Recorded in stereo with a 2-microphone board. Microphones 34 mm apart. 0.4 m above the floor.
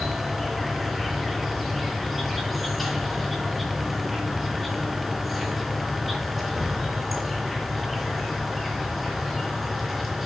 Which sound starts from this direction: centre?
An insect, at 0.0 s.